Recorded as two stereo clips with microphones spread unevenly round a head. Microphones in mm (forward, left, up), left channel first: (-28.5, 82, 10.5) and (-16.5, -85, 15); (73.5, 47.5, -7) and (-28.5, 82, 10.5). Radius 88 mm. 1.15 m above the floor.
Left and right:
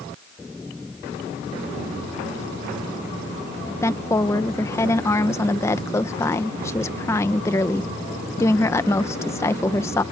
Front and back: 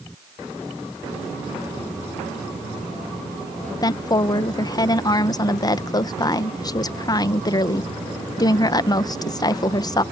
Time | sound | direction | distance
3.8 | a woman speaking | 20° left | ?